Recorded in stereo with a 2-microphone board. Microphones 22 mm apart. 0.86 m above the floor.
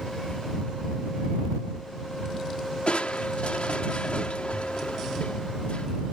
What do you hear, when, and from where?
2.9 s crushing: 65° left (ahead or behind)